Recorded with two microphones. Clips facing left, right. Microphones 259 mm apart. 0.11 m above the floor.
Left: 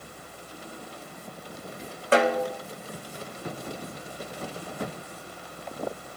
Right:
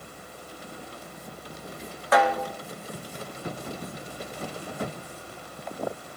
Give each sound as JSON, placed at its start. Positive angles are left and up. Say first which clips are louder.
{"t": 2.1, "sound": "a snare drum", "louder": "left 2 dB", "side_deg": 30, "distance_m": 1.6}